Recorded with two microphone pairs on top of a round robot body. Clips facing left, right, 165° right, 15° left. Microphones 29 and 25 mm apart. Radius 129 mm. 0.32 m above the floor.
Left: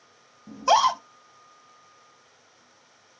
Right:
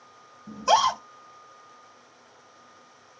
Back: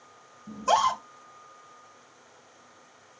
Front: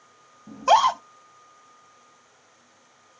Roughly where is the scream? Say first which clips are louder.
Left 1 dB, front 5 dB; ahead.